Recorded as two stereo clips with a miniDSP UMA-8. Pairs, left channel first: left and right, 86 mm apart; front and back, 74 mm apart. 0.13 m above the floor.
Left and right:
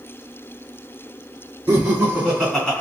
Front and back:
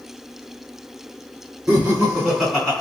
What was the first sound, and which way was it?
Laughter, 120° right.